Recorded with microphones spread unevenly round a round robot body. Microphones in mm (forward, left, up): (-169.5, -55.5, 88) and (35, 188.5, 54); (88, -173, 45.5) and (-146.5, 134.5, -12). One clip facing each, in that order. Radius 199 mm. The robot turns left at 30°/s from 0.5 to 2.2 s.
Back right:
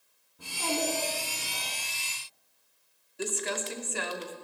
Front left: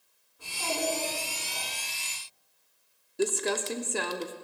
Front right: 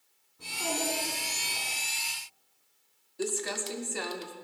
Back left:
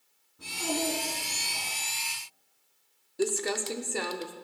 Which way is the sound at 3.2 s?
95° left.